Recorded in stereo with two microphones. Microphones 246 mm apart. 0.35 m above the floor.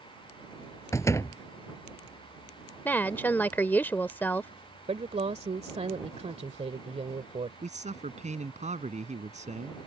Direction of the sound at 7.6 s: 30° right (ahead or behind).